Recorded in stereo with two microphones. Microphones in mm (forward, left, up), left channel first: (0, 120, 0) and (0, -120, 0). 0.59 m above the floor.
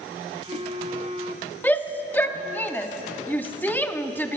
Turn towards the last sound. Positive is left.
turn(degrees=10)  # may be behind; listen again after turning